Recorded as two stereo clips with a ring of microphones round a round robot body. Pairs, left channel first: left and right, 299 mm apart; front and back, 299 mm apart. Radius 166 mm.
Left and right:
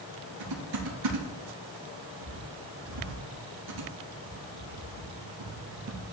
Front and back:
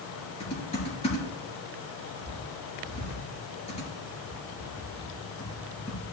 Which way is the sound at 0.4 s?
70° right.